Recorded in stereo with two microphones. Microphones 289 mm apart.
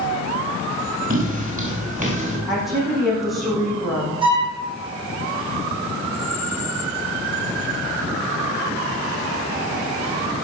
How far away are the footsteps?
About 5.5 m.